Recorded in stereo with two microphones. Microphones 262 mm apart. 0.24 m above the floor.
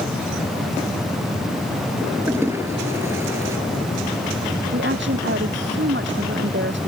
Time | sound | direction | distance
2.3 | a toilet flushing | 10° right (ahead or behind) | ?
4.7 | a woman speaking | 45° right (ahead or behind) | ?